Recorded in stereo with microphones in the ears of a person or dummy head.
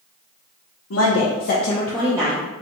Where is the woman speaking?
70° left (ahead or behind), 1.0 m; by 2.5 s 20° right (ahead or behind), 1.0 m.